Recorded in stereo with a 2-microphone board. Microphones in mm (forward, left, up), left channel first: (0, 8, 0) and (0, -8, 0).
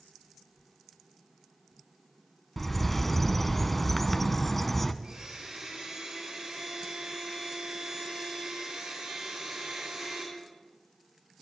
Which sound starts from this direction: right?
A blender, at 5.0 s.